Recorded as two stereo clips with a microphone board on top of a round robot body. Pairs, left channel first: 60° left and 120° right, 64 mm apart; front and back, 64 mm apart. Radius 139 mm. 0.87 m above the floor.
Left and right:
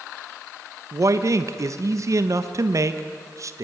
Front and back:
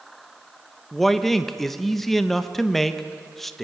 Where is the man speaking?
90° right, 1.1 m.